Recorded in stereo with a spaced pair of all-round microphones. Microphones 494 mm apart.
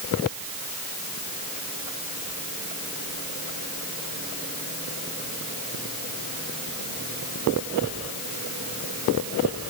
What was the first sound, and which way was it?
Only background noise.